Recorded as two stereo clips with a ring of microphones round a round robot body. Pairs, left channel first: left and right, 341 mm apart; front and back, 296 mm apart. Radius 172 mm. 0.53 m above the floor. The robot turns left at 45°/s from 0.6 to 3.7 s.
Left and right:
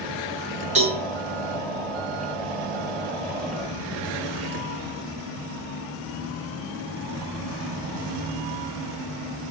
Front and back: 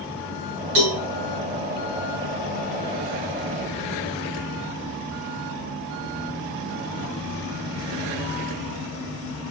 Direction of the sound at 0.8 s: 160° right.